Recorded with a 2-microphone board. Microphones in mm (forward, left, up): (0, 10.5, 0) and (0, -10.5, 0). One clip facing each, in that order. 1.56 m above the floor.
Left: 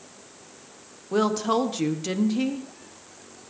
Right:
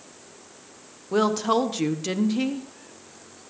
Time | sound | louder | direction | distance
1.1 | a woman speaking | right 1 dB | 10° right (ahead or behind) | 1.0 m